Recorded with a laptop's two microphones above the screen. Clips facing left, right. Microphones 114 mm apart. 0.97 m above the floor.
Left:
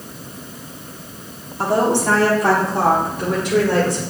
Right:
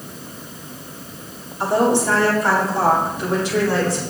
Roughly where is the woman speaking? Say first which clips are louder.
Even; left.